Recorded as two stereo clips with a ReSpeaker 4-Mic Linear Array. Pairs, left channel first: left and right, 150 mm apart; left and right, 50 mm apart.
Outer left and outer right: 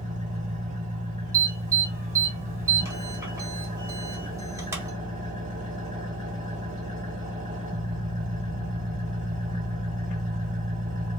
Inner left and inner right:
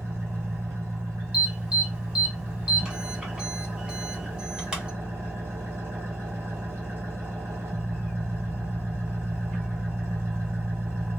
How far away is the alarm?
About 1.5 m.